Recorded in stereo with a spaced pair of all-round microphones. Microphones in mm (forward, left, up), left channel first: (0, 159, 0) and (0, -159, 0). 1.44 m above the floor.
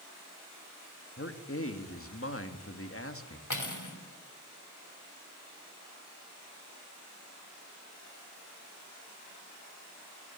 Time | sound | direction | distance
1.2 | a man speaking | 45° left (ahead or behind) | 2.0 m
3.5 | cutlery clinking | 70° left (ahead or behind) | 3 m